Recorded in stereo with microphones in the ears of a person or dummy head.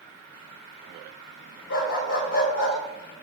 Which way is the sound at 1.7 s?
75° left (ahead or behind).